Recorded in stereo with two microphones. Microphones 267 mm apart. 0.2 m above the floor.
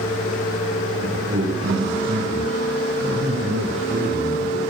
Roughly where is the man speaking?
Right.